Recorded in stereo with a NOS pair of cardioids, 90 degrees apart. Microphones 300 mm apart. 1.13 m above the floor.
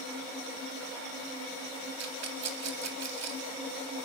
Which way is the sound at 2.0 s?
55° right.